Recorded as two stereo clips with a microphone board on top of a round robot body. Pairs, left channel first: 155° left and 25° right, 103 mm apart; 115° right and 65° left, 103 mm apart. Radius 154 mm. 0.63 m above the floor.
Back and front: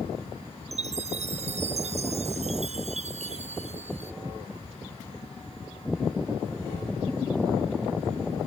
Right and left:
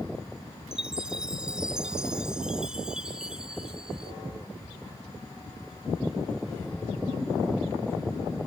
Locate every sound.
0.7 s a chime: 15° right